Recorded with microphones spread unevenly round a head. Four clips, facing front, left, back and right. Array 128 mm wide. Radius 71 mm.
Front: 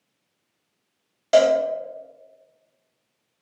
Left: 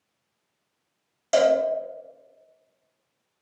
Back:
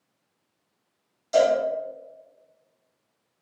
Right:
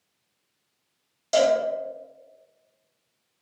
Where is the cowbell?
10° left, 0.9 m.